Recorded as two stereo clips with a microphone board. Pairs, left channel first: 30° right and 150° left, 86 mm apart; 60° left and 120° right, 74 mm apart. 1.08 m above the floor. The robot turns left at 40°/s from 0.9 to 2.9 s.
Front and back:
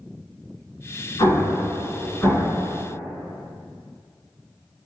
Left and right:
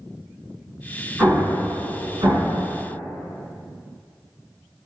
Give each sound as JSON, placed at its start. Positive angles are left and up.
{"t": 1.2, "sound": "an explosion", "azimuth_deg": -60, "distance_m": 1.9}